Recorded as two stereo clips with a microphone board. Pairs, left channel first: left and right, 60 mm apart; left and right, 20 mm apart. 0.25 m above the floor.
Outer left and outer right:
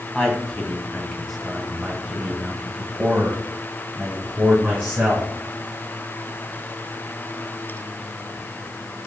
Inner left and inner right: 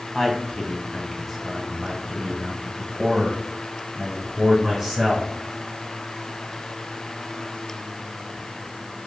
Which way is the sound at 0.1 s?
10° left (ahead or behind).